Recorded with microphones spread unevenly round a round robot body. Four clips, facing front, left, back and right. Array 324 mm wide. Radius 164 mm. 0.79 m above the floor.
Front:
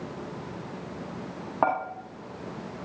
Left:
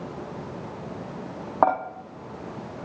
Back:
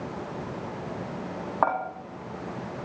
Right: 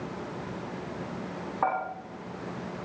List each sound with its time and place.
1.6 s dishes clattering: 75° left, 1.1 m